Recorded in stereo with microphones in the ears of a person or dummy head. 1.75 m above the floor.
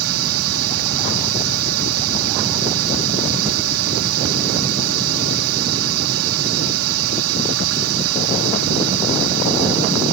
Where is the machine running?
85° right.